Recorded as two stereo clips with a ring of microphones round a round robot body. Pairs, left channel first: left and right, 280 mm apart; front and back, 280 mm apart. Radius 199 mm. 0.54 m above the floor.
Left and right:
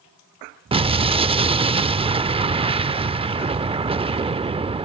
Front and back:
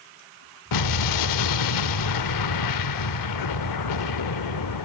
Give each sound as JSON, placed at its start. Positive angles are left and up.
{"t": 0.7, "sound": "an explosion", "azimuth_deg": -15, "distance_m": 0.6}